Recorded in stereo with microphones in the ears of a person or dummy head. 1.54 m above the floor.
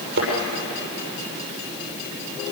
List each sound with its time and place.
0.2 s a thud: 65° right (ahead or behind), 6.5 m